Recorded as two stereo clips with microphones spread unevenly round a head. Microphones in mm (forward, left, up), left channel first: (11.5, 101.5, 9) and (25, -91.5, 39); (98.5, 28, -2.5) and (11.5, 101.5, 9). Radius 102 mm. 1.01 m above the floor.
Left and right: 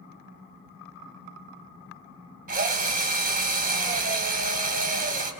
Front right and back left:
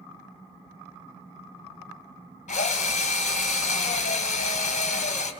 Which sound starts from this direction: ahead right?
A drill, at 2.5 s.